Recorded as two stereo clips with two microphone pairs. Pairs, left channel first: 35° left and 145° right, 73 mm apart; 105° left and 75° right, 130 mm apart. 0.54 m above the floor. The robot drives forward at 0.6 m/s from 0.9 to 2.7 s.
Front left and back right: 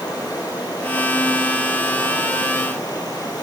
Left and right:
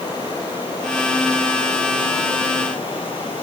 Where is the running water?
50° left, 9 m; by 3.4 s 60° left, 8 m.